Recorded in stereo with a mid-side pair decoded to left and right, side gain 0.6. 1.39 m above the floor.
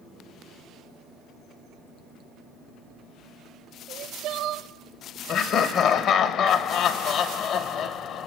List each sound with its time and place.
3.9 s crying: 65° right, 0.8 m
5.3 s laughter: 55° left, 1.1 m